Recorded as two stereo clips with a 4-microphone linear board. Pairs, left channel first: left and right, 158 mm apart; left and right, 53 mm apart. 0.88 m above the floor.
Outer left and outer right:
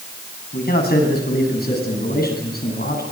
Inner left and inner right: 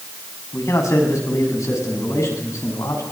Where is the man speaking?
80° left, 8.5 m; by 3.0 s 75° left (ahead or behind), 10 m.